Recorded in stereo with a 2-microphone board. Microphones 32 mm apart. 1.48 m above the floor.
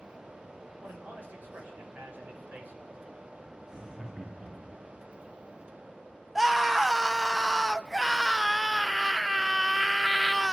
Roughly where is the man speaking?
Right.